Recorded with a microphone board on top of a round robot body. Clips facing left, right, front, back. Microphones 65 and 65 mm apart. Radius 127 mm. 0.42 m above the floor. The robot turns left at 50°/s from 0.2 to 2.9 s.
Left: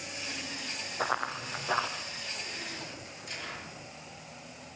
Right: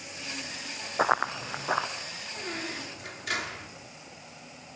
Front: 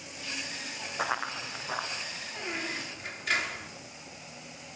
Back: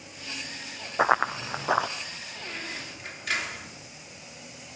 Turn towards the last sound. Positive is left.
turn(degrees=-90)